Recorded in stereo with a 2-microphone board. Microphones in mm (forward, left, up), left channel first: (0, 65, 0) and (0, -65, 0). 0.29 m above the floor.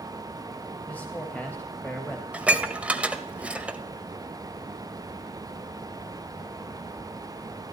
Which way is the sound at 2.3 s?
10° right (ahead or behind).